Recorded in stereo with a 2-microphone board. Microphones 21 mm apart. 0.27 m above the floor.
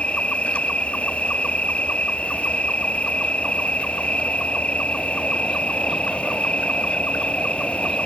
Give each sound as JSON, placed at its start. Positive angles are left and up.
{"t": 0.0, "sound": "an insect", "side_deg": 85}